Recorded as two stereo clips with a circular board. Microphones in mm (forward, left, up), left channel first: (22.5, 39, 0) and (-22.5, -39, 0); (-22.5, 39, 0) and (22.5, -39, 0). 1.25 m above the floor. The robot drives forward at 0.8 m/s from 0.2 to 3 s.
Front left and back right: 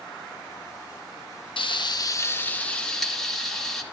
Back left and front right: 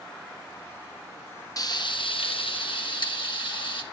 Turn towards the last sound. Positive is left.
turn(degrees=145)